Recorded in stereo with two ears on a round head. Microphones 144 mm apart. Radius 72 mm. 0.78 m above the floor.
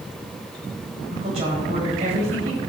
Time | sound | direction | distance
1.1 | a woman speaking | 40° right (ahead or behind) | 4 m